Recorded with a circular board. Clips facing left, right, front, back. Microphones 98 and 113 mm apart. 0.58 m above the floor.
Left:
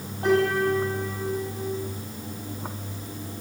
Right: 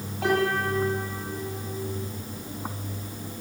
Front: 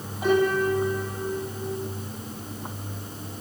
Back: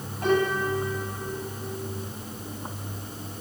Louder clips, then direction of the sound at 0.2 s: Left 3 dB, front 2 dB; 85° right.